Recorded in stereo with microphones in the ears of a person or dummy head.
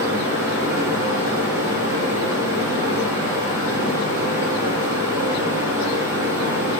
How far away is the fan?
About 2 m.